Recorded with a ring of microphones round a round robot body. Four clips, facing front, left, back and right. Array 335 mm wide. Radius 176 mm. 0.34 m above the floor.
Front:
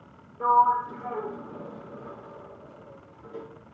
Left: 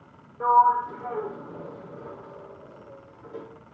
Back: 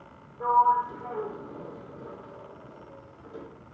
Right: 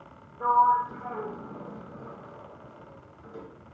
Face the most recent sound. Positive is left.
turn(degrees=75)